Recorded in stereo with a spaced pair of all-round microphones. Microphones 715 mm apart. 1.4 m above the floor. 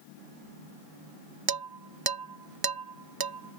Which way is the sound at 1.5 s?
35° right (ahead or behind).